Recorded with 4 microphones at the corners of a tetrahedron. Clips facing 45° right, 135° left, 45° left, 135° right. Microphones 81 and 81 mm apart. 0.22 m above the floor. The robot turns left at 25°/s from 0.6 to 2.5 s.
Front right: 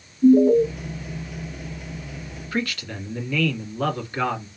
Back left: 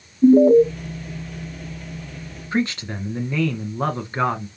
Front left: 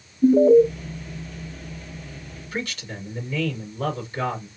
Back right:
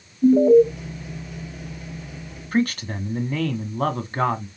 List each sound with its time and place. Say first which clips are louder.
0.2 s an alarm: back left 3 dB, even; 140° left, 1.0 m
2.5 s a man speaking: back left 5 dB, back right 9 dB; 170° right, 1.6 m